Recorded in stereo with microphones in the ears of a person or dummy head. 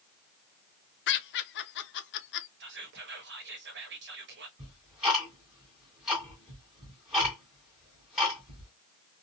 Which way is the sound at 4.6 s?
5° right (ahead or behind).